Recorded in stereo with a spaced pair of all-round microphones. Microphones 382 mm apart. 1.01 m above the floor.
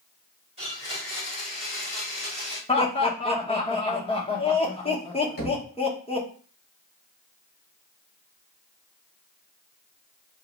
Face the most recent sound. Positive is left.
turn(degrees=40)  # may be behind; listen again after turning